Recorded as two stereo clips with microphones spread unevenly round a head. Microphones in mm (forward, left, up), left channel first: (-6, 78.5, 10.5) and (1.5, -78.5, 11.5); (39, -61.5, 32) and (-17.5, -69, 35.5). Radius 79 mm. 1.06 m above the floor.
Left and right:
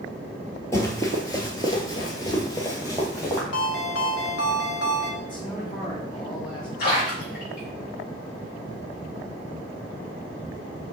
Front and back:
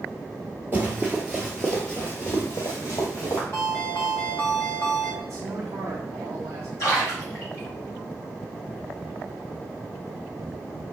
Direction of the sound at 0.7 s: 155° left.